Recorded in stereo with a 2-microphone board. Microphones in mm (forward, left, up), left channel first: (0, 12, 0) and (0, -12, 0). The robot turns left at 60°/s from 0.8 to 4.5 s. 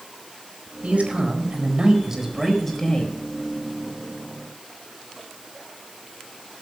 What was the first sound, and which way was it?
A man speaking, 85° right.